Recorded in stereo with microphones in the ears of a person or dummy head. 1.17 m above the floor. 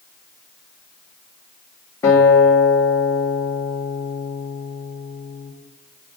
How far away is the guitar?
About 2 m.